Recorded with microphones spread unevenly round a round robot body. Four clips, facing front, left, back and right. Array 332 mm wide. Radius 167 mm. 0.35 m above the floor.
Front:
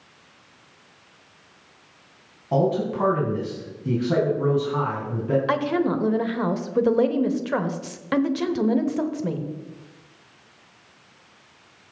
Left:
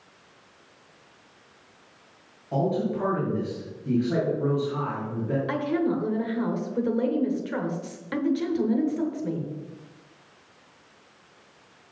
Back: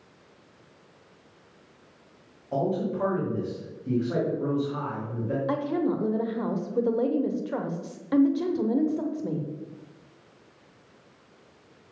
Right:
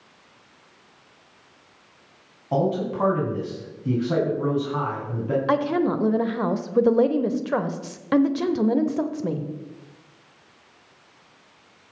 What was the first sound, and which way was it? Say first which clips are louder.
A man speaking: right 2 dB, front 5 dB; 35° right.